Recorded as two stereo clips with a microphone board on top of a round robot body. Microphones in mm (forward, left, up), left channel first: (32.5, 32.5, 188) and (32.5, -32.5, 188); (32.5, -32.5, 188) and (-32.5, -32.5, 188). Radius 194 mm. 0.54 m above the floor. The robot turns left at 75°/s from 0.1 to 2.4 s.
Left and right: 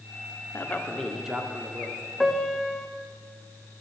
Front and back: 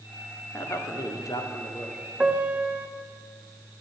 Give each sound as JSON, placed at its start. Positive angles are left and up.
{"t": 0.5, "sound": "a man speaking", "azimuth_deg": 45, "distance_m": 1.9}
{"t": 2.2, "sound": "a piano", "azimuth_deg": 175, "distance_m": 1.1}